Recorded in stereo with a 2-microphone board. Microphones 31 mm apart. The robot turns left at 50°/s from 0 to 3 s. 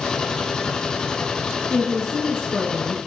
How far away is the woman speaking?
About 4 m.